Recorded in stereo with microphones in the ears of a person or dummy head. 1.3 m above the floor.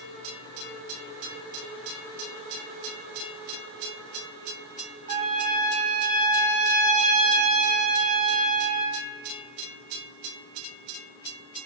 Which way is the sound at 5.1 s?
45° right (ahead or behind).